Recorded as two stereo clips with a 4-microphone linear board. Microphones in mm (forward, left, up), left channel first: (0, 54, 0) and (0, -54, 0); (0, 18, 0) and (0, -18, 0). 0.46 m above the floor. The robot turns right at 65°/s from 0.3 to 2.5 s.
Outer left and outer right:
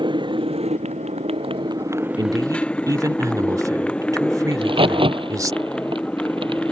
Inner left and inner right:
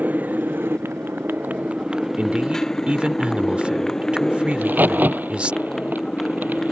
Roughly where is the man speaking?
Right.